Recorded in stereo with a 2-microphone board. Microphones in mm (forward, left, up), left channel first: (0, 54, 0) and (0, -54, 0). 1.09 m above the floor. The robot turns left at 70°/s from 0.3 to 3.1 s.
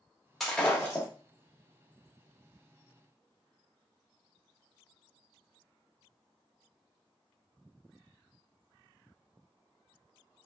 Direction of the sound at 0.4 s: Straight behind.